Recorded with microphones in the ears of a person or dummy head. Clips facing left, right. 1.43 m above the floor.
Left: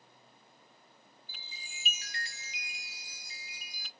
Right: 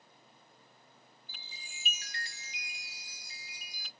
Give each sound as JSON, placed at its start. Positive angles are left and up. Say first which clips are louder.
{"t": 1.3, "sound": "a chime", "louder": "left 1 dB", "side_deg": 75, "distance_m": 0.9}